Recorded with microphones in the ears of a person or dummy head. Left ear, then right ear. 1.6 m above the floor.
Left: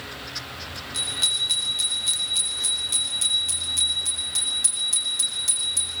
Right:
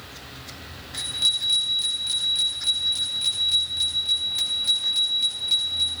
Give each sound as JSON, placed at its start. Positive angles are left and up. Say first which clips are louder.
{"t": 0.9, "sound": "a bicycle bell", "louder": "right 1 dB", "side_deg": 5, "distance_m": 7.0}